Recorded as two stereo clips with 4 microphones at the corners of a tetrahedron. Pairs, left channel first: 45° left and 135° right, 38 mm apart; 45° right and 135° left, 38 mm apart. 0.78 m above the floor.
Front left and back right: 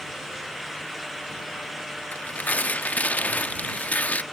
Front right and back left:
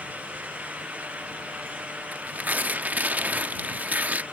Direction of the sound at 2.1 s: 90° left.